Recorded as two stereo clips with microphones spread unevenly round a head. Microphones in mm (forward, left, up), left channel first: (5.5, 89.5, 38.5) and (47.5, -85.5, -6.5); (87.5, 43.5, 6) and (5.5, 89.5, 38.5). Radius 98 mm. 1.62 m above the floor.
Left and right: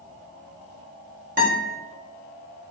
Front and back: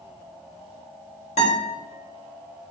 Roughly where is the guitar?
Ahead right.